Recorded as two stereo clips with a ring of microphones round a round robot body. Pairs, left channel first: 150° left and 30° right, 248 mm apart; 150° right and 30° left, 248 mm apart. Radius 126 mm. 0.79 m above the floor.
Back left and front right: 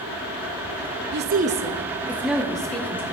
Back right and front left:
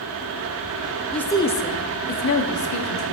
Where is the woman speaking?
60° right, 0.8 m; by 3.1 s 130° right, 1.7 m.